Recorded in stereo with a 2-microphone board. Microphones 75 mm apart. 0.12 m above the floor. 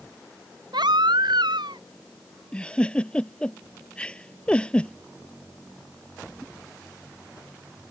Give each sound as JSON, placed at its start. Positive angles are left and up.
{"t": 0.7, "sound": "a baby crying", "side_deg": -75}
{"t": 2.5, "sound": "a giggle", "side_deg": 15}